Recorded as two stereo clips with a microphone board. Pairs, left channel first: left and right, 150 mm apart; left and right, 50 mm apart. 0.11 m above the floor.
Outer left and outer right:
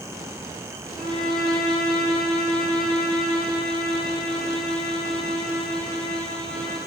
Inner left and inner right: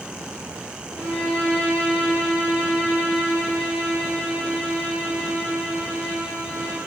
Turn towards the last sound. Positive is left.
turn(degrees=30)  # may be behind; listen again after turning